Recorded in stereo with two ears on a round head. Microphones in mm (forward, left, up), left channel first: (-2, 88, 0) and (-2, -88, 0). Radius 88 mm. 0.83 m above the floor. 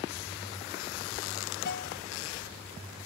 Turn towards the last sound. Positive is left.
turn(degrees=50)  # may be behind; listen again after turning